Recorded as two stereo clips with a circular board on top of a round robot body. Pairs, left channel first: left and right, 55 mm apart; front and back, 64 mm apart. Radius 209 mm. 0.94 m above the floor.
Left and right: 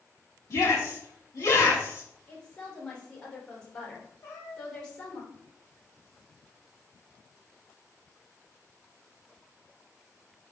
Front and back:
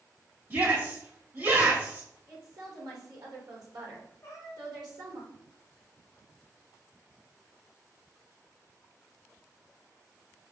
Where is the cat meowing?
50° left, 1.0 m.